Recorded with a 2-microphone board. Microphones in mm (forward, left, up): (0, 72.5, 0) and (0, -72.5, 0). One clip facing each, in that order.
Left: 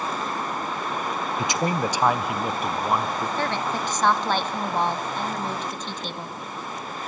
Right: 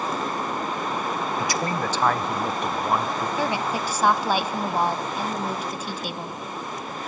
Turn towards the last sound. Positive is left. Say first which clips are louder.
# right 2 dB
turn(degrees=-10)  # may be behind; listen again after turning